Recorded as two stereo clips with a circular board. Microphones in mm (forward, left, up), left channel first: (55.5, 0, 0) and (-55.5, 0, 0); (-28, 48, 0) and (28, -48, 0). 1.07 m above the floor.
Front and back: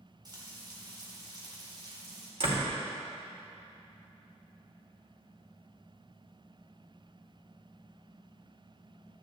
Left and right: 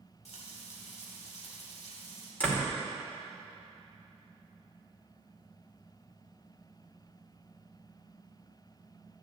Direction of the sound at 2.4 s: 165° right.